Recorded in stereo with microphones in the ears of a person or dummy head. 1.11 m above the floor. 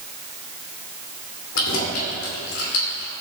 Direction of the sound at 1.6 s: 80° left.